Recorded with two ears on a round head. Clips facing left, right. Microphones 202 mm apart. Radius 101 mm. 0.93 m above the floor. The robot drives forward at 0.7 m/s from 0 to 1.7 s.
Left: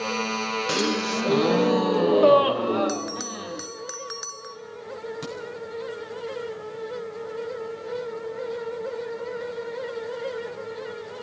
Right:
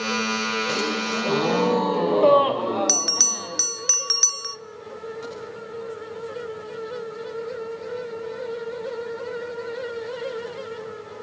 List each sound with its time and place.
0.7 s a gasp: 15° left (ahead or behind), 0.9 m; by 3.7 s 10° left (ahead or behind), 1.4 m
2.9 s a bell: 40° right (ahead or behind), 0.5 m
5.2 s a crack: 55° left (ahead or behind), 8 m